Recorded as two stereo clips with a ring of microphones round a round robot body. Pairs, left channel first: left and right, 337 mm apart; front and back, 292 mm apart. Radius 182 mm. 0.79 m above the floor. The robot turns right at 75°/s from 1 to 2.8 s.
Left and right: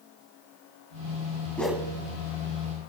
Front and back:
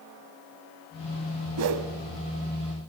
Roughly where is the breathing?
I don't hear breathing.